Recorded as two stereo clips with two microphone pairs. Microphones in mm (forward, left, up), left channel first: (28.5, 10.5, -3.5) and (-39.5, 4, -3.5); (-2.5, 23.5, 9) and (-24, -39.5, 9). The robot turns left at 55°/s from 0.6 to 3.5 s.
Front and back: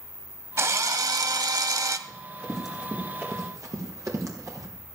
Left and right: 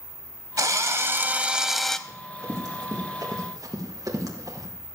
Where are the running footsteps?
55° right, 6 m; by 4.7 s 135° right, 4 m.